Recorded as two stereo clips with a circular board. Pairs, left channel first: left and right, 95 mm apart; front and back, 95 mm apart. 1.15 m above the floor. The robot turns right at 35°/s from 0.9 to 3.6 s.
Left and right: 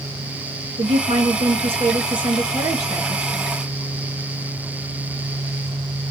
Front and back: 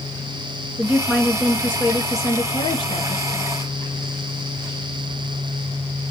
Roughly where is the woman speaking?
Right.